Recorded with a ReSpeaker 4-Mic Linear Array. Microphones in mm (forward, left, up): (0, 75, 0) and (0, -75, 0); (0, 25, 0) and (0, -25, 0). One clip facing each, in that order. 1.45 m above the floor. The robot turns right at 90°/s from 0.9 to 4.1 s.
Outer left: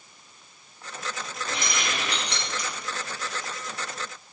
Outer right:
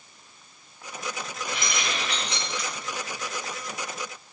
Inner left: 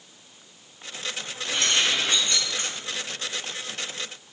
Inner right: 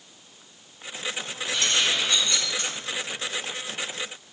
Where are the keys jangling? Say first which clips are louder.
Outer left 1 dB, inner left 1 dB; 30° left (ahead or behind), 3.5 m; by 2.7 s 40° left (ahead or behind), 3.5 m.